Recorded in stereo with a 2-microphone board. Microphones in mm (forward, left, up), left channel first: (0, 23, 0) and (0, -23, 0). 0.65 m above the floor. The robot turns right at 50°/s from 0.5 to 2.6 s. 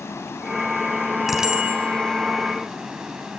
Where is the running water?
85° left, 4 m; by 3.4 s 170° right, 4 m.